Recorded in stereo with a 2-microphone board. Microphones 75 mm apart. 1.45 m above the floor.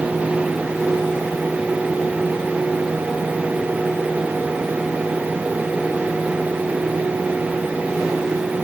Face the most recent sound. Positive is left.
No sound to turn to.